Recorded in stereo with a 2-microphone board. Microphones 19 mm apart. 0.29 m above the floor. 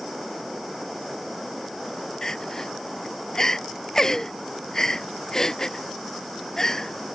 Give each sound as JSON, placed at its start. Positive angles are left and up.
{"t": 2.2, "sound": "crying", "side_deg": 30}